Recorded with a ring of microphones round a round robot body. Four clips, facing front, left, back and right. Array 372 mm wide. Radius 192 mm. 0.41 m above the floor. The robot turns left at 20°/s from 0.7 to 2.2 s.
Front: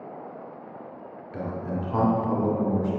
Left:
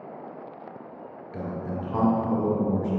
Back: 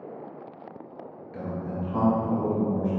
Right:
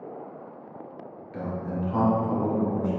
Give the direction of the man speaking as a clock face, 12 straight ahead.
11 o'clock.